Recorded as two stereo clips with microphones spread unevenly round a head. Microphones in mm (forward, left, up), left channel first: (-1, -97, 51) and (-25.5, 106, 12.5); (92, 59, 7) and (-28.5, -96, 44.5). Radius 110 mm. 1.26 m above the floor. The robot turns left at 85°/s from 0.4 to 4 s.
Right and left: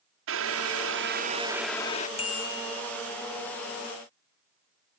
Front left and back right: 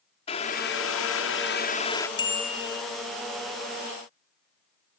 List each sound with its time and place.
0.3 s boiling: 115° left; by 2.1 s 25° right
2.2 s a bicycle bell: 15° right; by 2.8 s 70° right